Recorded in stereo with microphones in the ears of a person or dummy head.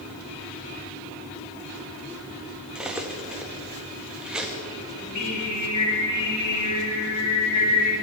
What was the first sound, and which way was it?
Cutlery clinking, 5° right (ahead or behind).